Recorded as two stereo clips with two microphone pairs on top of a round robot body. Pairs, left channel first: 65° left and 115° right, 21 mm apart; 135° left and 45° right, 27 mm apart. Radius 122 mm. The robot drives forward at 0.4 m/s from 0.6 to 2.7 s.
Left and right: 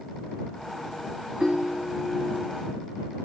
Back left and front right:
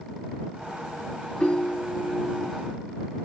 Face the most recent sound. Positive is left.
turn(degrees=-170)